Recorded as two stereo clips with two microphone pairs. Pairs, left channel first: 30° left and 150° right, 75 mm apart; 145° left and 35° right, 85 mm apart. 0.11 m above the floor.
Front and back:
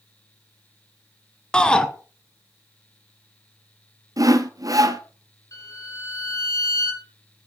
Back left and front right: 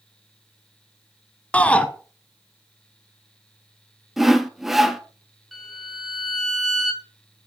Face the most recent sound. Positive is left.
turn(degrees=55)